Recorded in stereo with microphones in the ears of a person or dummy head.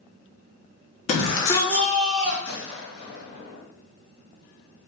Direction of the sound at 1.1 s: 40° left (ahead or behind).